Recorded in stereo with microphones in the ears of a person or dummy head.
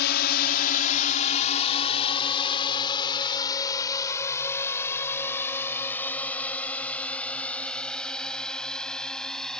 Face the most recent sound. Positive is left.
turn(degrees=0)  # may be behind; listen again after turning